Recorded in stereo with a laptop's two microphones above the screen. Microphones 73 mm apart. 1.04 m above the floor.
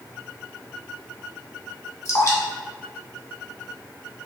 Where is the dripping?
50° left (ahead or behind), 1.5 m.